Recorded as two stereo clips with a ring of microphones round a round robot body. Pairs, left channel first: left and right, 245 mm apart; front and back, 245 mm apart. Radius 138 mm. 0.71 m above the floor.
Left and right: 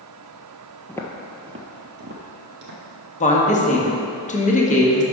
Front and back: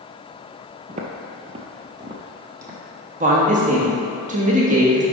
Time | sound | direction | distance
0.9 | footsteps | 150° left | 0.7 m
3.2 | a woman speaking | 135° left | 1.2 m